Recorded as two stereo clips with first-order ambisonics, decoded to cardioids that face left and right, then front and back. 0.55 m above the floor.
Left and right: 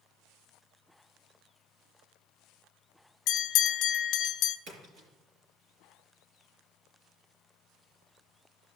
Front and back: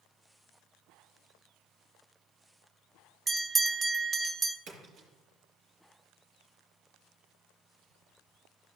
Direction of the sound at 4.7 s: 130° right.